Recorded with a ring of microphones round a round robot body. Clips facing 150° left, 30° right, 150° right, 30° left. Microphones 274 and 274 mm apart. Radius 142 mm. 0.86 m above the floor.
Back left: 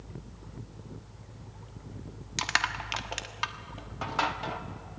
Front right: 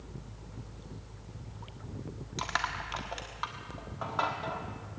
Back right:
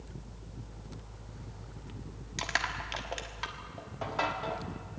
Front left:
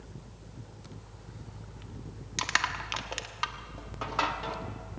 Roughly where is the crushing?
Left.